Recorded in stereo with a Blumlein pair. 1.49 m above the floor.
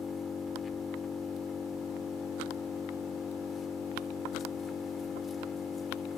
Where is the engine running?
20° left.